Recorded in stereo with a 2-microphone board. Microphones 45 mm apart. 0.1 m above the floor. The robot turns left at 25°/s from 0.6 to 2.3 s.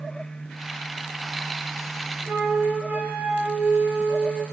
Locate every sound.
2.3 s a flute: 40° right (ahead or behind), 1.5 m